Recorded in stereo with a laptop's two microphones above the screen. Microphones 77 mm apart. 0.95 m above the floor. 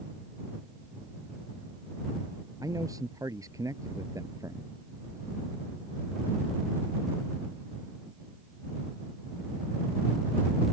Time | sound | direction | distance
2.6 | a man speaking | 50° right (ahead or behind) | ?